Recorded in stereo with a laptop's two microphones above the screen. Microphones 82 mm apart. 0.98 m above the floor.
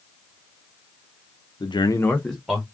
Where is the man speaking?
60° left (ahead or behind), 0.5 m; by 2.6 s centre (ahead or behind), 1.3 m.